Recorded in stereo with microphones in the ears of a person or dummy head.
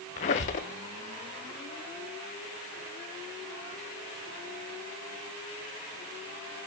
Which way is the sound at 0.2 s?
40° left (ahead or behind).